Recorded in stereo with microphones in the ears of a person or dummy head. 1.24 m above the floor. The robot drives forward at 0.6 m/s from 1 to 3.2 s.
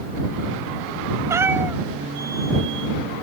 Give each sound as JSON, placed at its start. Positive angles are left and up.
{"t": 1.3, "sound": "a cat meowing", "side_deg": -20}